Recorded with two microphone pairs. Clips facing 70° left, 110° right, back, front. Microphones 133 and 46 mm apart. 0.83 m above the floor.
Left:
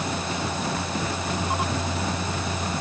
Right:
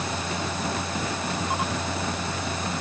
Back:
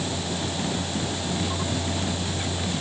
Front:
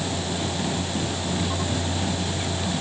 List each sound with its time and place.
Only background noise.